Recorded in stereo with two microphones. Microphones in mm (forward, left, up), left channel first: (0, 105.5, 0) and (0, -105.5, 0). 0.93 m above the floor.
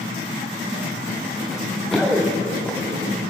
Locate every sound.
1.5 s running footsteps: centre (ahead or behind), 3.5 m; by 3.1 s 10° left (ahead or behind), 4 m